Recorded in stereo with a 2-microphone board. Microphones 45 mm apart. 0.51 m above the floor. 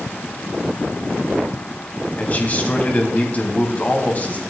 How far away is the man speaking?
About 3 m.